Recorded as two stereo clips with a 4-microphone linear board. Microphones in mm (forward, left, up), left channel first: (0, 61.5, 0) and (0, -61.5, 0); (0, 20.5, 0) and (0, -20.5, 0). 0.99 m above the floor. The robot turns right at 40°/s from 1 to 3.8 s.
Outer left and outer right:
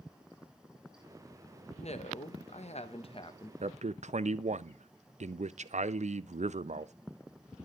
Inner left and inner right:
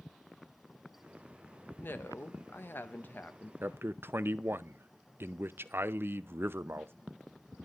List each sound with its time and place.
1.8 s a woman speaking: 70° left, 0.9 m; by 3.5 s 140° left, 0.9 m
3.6 s a man speaking: 60° right (ahead or behind), 0.5 m